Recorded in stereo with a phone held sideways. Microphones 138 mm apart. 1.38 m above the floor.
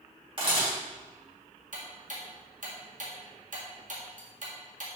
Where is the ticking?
75° right (ahead or behind), 1.8 m.